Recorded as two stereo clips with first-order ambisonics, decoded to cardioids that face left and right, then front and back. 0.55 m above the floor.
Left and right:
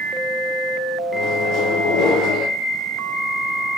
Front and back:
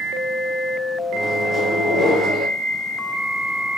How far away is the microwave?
About 1.0 m.